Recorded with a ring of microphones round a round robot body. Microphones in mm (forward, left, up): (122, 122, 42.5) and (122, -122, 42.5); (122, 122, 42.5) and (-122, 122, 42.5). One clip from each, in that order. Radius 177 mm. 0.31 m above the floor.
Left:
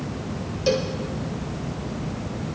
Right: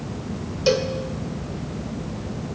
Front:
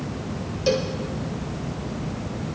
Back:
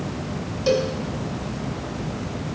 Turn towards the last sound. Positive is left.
turn(degrees=-75)